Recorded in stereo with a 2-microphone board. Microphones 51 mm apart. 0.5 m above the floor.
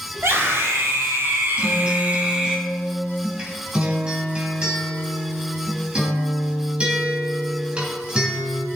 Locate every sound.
0.1 s a scream: 55° right (ahead or behind), 3 m; by 2.6 s 15° right (ahead or behind), 1.4 m
1.6 s a guitar: 20° right (ahead or behind), 2.5 m